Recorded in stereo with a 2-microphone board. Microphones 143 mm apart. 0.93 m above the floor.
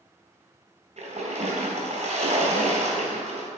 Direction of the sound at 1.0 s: 60° right (ahead or behind).